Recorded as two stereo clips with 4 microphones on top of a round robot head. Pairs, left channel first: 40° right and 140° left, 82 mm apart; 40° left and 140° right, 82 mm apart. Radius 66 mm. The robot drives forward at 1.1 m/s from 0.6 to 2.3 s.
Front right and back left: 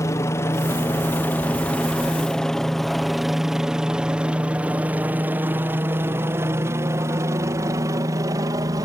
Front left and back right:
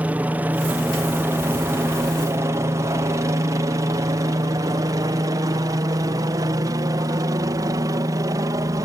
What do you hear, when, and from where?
0.0 s a helicopter: 75° right; by 8.9 s straight behind